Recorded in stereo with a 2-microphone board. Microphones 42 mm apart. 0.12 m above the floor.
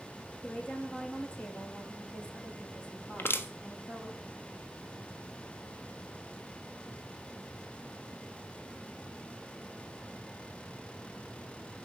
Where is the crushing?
65° left (ahead or behind), 1.2 m.